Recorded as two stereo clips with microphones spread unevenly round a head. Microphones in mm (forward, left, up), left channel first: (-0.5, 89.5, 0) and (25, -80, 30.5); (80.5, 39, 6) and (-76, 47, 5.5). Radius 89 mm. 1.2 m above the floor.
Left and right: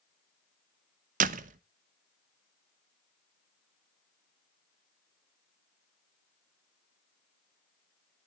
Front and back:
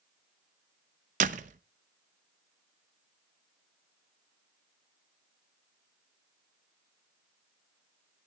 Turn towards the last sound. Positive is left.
turn(degrees=-130)